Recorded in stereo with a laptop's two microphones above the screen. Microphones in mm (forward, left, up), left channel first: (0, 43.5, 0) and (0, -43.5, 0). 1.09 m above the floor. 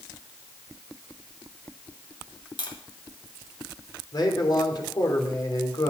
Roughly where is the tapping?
Left.